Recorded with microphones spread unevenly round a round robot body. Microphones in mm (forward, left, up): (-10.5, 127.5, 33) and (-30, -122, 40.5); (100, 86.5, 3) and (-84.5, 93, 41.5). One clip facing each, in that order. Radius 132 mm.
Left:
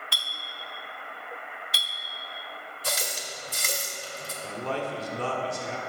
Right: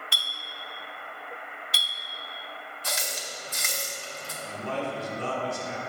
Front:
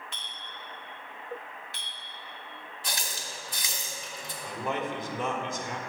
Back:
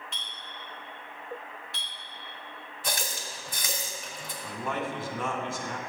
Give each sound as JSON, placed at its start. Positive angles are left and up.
{"t": 0.1, "sound": "a clink", "azimuth_deg": -90, "distance_m": 0.7}
{"t": 2.8, "sound": "a running tap", "azimuth_deg": 135, "distance_m": 1.2}
{"t": 4.4, "sound": "a man speaking", "azimuth_deg": 65, "distance_m": 1.5}